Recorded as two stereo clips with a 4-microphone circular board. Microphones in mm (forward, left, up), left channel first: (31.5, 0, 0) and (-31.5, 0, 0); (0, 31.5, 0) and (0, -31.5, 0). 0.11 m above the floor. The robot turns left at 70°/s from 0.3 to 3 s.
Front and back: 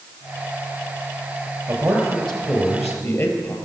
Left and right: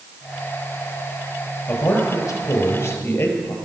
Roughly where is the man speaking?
Behind left.